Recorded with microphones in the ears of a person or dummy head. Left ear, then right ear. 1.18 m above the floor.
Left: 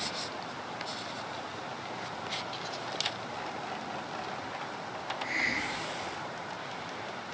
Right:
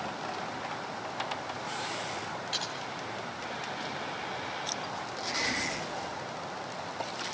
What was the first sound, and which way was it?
Typing on a keyboard, 35° right (ahead or behind).